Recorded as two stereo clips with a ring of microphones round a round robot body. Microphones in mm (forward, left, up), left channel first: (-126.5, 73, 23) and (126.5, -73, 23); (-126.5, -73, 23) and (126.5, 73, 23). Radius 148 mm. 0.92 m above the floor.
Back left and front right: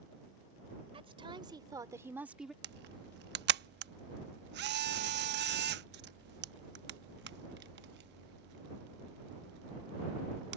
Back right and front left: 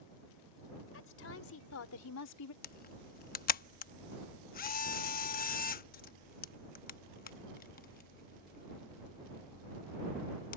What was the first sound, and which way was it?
A woman speaking, 105° right.